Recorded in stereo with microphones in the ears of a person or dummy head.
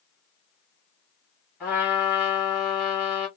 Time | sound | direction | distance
1.6 | a trumpet | 5° right (ahead or behind) | 1.3 m